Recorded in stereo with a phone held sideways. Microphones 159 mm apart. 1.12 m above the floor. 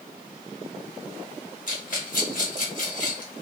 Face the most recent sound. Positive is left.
turn(degrees=60)  # may be behind; listen again after turning